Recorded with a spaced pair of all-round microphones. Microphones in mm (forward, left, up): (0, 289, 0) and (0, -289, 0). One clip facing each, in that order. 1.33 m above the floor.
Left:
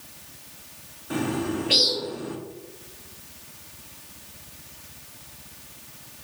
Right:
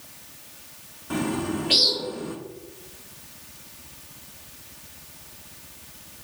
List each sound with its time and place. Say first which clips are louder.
1.1 s a bird: even; 30° right (ahead or behind), 0.8 m